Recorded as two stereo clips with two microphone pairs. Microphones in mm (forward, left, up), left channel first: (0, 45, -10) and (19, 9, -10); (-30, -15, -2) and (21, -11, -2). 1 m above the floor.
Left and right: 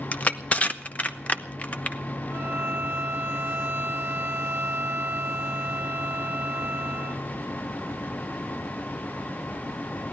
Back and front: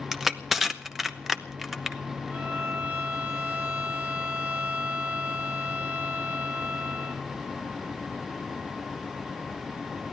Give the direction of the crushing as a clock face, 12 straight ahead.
9 o'clock.